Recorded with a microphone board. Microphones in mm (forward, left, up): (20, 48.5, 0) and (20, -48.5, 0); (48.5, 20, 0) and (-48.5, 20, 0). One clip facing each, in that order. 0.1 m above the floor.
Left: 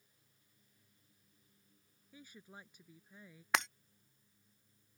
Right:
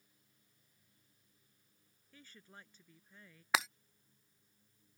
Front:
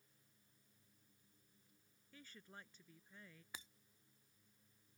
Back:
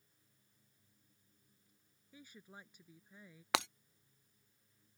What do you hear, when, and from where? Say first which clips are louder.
2.1 s a woman speaking: left 3 dB, back 3 dB; 135° left
3.5 s breaking glass: even, back 22 dB; 175° right